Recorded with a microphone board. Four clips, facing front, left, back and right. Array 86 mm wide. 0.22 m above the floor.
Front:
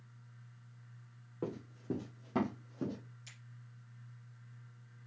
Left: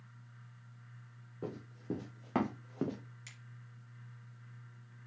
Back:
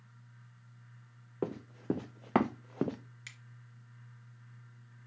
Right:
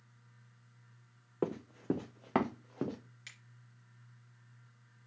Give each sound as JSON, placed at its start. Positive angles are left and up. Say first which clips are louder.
{"t": 1.4, "sound": "running footsteps", "louder": "right 7 dB, back 5 dB", "azimuth_deg": -120, "distance_m": 1.0}
{"t": 3.3, "sound": "a finger snap", "louder": "right 1 dB, back 6 dB", "azimuth_deg": -165, "distance_m": 3.0}